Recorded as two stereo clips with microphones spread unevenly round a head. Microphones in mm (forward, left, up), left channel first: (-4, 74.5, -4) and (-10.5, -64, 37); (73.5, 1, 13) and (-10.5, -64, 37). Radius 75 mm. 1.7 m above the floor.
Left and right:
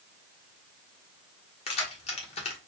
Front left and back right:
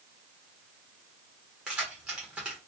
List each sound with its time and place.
1.7 s keys jangling: 140° left, 1.0 m